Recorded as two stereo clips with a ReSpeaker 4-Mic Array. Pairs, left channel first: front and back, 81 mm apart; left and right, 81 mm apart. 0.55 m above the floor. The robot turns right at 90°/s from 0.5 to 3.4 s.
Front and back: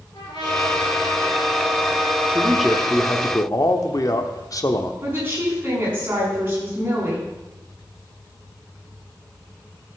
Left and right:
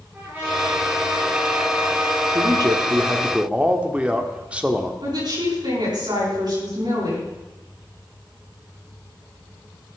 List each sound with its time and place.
0.1 s a trumpet: 20° right, 6 m; by 3.0 s 150° right, 6 m
2.3 s a man speaking: 120° right, 1.1 m; by 4.9 s 20° right, 1.1 m
5.0 s a woman speaking: 115° right, 6 m